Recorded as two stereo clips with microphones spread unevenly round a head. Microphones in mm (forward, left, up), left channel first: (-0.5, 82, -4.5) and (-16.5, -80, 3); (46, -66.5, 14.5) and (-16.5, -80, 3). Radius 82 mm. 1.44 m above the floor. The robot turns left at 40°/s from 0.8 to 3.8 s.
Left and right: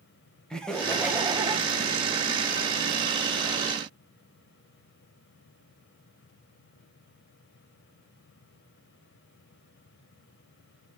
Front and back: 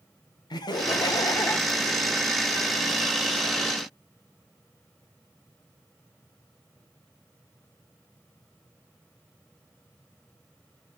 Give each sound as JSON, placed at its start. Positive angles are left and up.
{"t": 0.5, "sound": "laughter", "azimuth_deg": 0, "distance_m": 1.5}